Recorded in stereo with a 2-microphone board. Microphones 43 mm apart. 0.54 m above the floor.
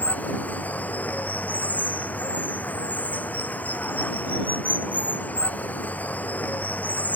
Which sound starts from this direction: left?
Running water, at 0.0 s.